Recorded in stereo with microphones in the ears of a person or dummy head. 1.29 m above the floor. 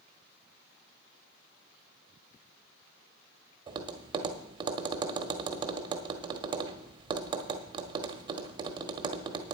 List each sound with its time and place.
3.7 s tapping: 30° right (ahead or behind), 1.0 m